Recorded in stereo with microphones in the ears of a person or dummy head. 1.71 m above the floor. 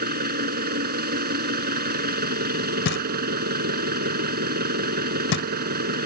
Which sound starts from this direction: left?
Knocking, at 2.9 s.